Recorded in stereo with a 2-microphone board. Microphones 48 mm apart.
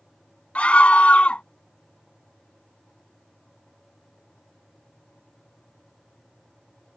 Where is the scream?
25° left (ahead or behind).